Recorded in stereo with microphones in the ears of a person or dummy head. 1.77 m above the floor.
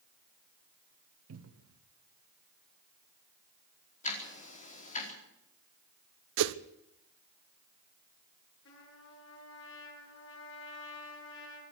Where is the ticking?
35° left (ahead or behind), 4 m.